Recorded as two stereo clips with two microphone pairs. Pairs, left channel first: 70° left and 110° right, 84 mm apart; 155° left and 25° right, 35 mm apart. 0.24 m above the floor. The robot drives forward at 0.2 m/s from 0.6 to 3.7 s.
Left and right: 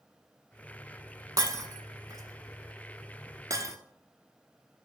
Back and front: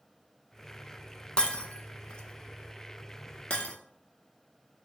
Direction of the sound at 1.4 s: 150° right.